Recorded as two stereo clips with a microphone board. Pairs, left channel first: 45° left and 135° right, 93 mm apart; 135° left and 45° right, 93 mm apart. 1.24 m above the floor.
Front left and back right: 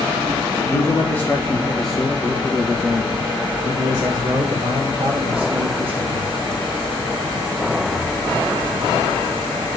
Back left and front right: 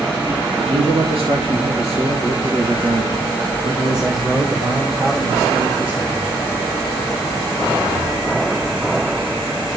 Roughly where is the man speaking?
Ahead.